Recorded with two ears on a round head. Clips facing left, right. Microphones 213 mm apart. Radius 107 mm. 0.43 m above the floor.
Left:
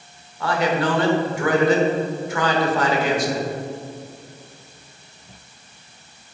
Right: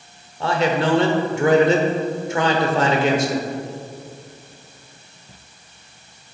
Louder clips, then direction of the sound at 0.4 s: Right 1 dB; 25° right (ahead or behind).